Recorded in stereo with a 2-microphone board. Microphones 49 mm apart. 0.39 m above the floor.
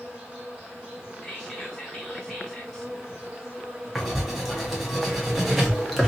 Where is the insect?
20° right (ahead or behind), 1.3 m.